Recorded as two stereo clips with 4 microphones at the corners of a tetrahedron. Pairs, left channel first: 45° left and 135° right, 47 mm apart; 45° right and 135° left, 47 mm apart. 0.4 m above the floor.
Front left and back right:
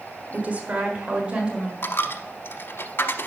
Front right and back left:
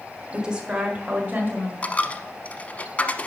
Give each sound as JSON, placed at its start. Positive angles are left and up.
{"t": 0.3, "sound": "a woman speaking", "azimuth_deg": -155, "distance_m": 1.5}
{"t": 1.8, "sound": "a dropped coin", "azimuth_deg": 15, "distance_m": 0.9}